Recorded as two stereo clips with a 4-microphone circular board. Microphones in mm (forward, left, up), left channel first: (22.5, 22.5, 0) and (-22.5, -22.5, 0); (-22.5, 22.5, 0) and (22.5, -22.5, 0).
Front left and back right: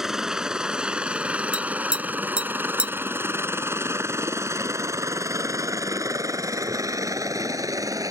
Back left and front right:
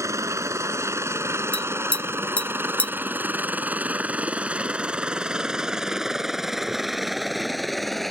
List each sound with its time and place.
0.0 s a helicopter: 55° right; by 8.1 s 140° right
1.5 s tapping: 170° left